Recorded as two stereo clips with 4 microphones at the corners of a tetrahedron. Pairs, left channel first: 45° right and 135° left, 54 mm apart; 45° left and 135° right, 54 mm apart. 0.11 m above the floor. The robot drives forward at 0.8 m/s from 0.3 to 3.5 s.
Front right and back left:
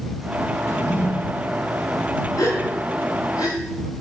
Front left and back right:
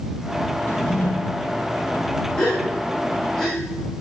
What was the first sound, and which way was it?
A drawer, 10° right.